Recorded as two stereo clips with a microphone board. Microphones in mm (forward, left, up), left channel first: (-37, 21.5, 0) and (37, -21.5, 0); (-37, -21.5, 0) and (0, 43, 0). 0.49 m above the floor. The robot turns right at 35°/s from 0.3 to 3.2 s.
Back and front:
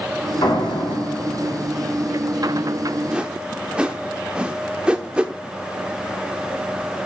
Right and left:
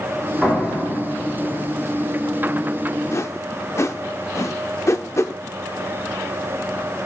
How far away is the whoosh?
About 0.5 m.